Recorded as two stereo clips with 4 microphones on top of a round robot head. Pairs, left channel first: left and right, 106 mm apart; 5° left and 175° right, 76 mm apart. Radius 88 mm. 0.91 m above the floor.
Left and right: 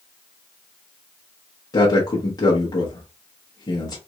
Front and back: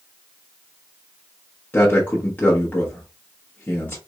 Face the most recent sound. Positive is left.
turn(degrees=60)